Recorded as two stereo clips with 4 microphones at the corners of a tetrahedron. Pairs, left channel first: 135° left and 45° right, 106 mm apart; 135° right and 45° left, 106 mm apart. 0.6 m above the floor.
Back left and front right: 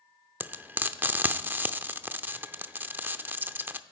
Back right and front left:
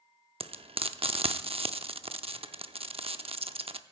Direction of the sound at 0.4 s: 25° left.